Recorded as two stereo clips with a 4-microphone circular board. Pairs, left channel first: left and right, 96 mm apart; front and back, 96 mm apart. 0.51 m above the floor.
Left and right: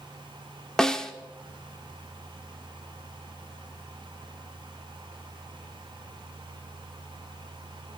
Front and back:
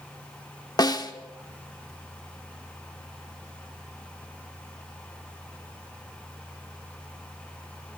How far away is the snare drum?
About 0.8 m.